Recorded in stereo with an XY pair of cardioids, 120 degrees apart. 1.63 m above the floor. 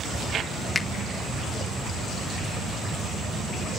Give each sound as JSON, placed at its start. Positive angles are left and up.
{"t": 0.8, "sound": "a finger snap", "azimuth_deg": 20, "distance_m": 1.5}